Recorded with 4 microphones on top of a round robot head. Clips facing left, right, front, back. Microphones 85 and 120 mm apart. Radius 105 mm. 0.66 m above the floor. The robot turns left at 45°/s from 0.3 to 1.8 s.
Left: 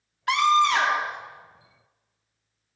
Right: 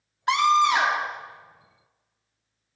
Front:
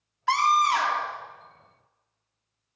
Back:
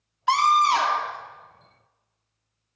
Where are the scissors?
I don't hear scissors.